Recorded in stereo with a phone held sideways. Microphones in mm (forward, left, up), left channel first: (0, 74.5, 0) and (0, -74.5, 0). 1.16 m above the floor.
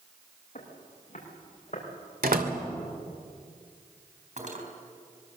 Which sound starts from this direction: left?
Footsteps, at 0.6 s.